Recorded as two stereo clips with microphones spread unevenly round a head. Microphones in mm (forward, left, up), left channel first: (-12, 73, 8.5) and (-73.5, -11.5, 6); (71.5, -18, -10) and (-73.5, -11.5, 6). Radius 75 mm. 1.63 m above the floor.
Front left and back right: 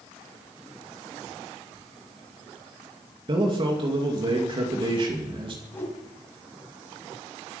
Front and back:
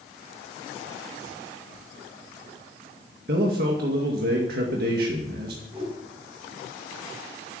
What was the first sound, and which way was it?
A man speaking, 165° right.